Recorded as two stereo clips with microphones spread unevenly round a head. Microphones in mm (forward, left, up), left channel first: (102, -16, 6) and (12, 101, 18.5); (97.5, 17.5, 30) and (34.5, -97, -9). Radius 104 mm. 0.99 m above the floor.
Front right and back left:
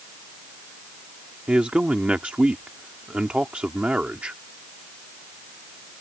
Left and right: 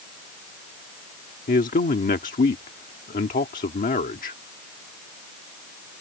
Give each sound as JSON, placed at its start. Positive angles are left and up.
{"t": 1.5, "sound": "a man speaking", "azimuth_deg": 45}